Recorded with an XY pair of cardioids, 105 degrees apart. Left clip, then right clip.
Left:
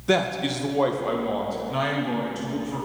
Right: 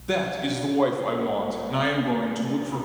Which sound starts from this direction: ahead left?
A man speaking, at 0.1 s.